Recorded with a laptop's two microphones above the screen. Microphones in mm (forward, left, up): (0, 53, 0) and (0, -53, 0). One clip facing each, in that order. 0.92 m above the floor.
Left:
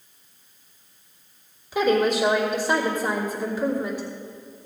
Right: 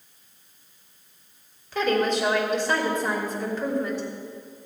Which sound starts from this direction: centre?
A woman speaking, at 1.7 s.